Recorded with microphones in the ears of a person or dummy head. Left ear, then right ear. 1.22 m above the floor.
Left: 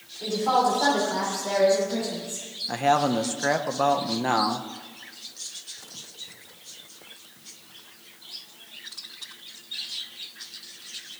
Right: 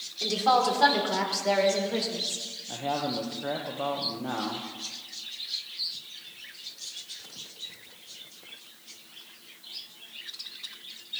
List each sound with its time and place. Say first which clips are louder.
0.2 s a woman speaking: left 1 dB; 55° right (ahead or behind), 3 m; by 2.4 s 35° right (ahead or behind), 4.5 m
2.7 s a man speaking: left 9 dB; 60° left (ahead or behind), 1.0 m